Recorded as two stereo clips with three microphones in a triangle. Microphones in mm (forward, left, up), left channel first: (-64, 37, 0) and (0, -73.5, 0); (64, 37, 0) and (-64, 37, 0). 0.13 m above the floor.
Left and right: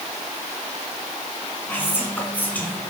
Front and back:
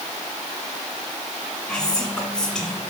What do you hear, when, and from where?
1.7 s whispering: 75° left, 1.6 m